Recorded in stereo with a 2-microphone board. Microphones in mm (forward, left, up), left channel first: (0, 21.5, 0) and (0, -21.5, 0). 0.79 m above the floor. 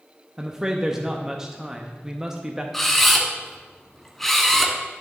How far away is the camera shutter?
About 1.5 m.